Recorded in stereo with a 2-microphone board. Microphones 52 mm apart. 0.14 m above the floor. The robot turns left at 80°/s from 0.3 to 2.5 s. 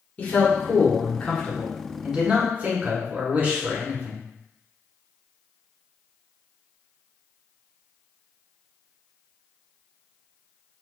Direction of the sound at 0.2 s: 120° left.